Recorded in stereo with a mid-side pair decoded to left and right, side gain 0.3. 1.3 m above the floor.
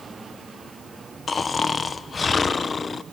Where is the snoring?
50° left, 0.7 m.